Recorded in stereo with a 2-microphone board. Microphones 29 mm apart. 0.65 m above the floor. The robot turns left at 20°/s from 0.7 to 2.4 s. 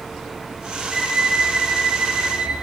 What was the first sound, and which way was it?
A violin, 10° right (ahead or behind).